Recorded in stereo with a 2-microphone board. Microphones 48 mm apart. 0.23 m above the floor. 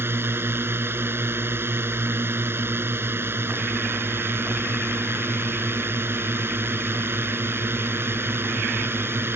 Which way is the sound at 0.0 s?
55° right (ahead or behind).